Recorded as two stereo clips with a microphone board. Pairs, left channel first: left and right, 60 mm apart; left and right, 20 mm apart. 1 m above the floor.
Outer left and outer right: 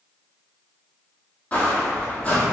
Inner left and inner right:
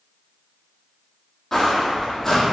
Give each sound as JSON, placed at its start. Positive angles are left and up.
{"t": 1.5, "sound": "footsteps", "side_deg": 25, "distance_m": 1.4}